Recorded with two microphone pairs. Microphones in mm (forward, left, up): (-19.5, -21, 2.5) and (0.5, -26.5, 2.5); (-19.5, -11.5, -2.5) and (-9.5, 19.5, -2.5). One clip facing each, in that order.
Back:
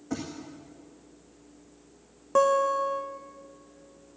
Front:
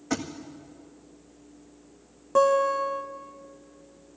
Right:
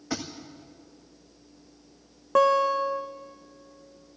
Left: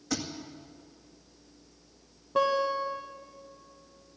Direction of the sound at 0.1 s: 40° right.